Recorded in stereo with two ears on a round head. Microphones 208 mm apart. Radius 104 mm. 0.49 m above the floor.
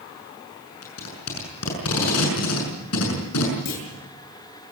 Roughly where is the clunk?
Left.